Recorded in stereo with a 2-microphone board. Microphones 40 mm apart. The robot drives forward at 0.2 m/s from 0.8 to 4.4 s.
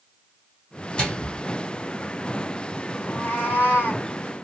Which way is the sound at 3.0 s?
45° left (ahead or behind).